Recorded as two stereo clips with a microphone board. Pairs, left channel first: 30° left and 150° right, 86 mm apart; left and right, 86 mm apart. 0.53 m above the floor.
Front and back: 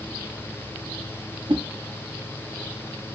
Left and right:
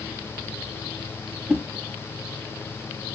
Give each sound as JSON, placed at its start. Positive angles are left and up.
{"t": 1.5, "sound": "a whoosh", "azimuth_deg": -170, "distance_m": 0.5}